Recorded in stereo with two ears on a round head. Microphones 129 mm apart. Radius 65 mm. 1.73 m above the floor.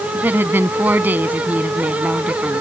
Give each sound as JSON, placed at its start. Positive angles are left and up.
{"t": 0.1, "sound": "a woman speaking", "side_deg": -15}